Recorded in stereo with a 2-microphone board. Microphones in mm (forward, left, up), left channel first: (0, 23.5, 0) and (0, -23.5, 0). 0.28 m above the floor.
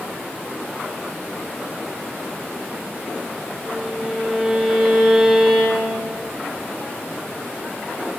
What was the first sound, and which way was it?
A violin, 5° left (ahead or behind).